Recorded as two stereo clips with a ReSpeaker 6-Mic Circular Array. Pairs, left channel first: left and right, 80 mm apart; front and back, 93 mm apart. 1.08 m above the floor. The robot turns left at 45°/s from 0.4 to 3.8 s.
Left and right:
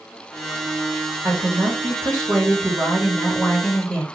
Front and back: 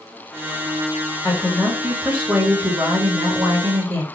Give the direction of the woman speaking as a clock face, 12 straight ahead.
2 o'clock.